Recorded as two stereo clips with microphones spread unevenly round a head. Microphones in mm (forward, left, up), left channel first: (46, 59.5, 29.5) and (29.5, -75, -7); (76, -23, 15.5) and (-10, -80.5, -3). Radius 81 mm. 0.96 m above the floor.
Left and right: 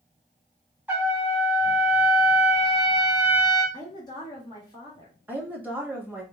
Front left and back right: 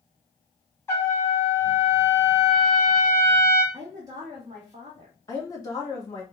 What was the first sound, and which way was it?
A trumpet, 35° right.